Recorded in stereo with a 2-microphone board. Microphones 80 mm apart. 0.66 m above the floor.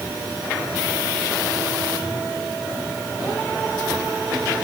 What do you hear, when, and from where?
Only background noise.